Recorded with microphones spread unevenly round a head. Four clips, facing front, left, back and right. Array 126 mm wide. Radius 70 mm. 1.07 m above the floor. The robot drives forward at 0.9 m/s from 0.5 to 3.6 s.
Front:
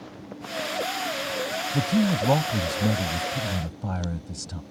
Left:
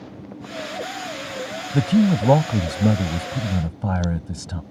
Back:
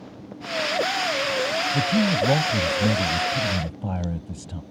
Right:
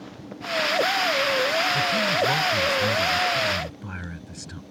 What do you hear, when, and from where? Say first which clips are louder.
1.7 s a man speaking: left 5 dB, even; 90° left; by 4.6 s 105° left